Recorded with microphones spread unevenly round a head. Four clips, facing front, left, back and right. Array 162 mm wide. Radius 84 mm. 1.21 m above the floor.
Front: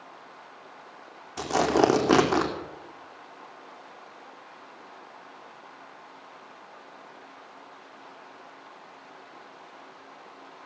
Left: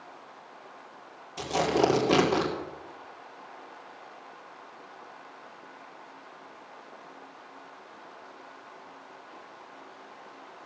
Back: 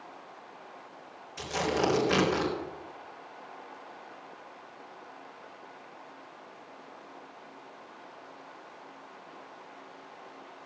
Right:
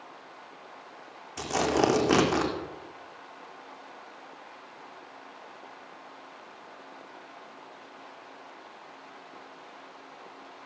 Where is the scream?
I don't hear a scream.